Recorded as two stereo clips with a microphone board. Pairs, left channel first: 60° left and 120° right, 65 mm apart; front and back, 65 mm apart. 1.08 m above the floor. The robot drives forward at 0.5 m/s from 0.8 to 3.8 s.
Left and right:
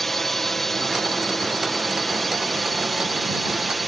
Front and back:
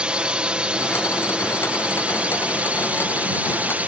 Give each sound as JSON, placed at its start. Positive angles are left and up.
{"t": 0.0, "sound": "a drone", "azimuth_deg": 140}